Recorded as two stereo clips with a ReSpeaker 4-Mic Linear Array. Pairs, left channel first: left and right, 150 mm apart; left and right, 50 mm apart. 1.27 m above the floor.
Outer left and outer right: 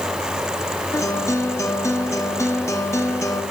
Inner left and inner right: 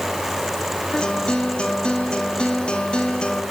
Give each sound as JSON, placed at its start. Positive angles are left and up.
{"t": 0.9, "sound": "a guitar", "side_deg": 20, "distance_m": 2.0}